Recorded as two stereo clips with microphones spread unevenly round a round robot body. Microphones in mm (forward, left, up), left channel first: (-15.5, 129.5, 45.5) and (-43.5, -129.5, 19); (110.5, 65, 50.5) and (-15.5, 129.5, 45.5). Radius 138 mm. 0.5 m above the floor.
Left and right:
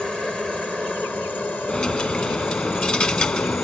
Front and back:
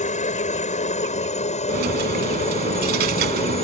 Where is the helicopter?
5° right; by 3.6 s straight ahead.